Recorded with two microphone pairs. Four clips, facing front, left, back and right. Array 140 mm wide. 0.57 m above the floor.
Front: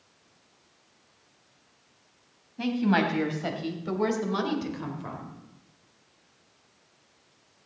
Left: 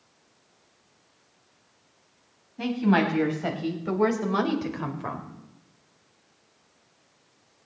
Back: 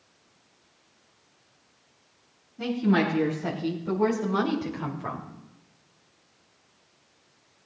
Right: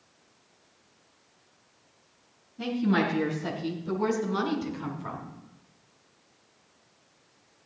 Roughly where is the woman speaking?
Ahead left.